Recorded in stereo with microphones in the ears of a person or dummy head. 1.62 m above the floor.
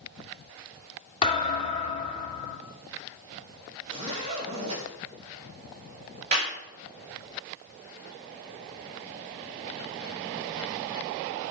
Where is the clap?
40° right (ahead or behind), 5 m.